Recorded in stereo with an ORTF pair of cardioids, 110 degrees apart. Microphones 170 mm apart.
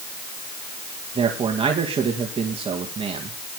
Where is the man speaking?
35° right, 2.5 m.